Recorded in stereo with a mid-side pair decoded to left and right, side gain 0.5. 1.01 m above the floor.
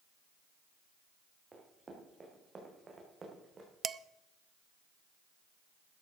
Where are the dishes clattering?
40° right, 0.5 m.